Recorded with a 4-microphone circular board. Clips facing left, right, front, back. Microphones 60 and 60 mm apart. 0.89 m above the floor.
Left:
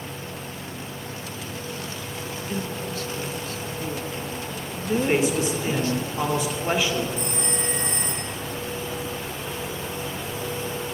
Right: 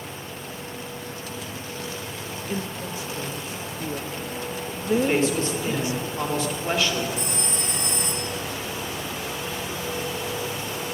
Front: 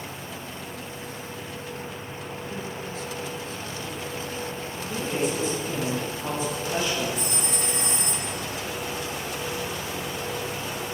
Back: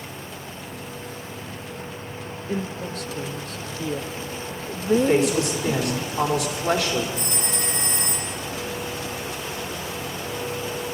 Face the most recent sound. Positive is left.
turn(degrees=135)